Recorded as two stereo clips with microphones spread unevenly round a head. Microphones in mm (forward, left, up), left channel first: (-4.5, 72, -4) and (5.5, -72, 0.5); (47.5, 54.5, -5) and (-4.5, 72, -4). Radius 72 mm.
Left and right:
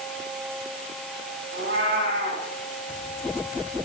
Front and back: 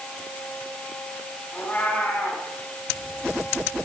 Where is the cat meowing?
90° right, 6 m.